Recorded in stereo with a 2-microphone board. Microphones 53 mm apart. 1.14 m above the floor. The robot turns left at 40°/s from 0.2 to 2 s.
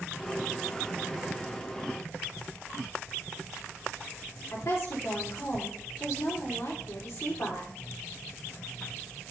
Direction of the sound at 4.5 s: 65° left (ahead or behind).